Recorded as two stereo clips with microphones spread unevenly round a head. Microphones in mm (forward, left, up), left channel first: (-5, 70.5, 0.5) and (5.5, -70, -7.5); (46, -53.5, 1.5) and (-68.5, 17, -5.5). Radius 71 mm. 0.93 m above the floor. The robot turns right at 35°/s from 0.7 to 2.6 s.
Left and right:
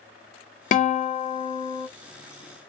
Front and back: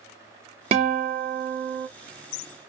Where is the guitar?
105° left, 0.6 m; by 1.9 s 145° left, 0.6 m.